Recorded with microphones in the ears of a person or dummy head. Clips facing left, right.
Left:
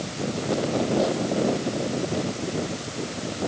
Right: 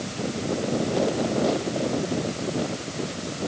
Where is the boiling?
No boiling in this recording.